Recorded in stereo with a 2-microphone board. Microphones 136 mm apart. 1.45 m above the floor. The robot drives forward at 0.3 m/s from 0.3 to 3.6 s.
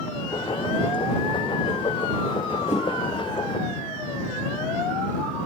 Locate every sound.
2.7 s a whoosh: 60° left (ahead or behind), 1.1 m